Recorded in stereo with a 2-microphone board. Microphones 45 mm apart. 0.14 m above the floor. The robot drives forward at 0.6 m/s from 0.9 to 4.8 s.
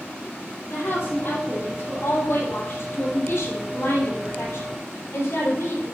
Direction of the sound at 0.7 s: 50° left (ahead or behind).